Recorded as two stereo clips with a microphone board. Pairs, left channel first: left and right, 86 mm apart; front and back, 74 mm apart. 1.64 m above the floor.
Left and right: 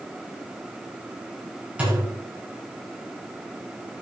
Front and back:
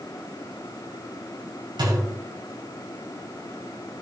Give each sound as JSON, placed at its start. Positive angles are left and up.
{"t": 1.8, "sound": "a thud", "azimuth_deg": -165, "distance_m": 5.0}